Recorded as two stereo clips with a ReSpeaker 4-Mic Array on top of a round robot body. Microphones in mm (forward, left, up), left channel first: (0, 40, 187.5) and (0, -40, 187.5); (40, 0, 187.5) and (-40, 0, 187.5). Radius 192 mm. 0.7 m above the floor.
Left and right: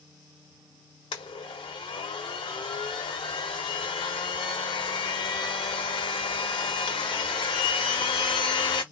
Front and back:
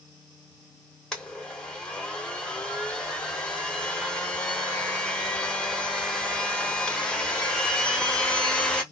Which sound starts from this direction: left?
A blender, at 1.1 s.